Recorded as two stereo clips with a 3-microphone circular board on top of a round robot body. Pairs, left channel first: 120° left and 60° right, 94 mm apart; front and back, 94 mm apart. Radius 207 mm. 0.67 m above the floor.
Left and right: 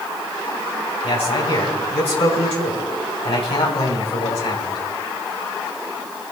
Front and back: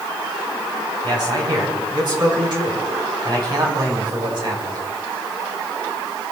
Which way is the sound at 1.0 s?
135° left.